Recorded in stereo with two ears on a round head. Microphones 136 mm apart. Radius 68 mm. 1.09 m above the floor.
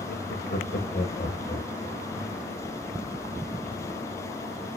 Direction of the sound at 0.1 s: 80° left.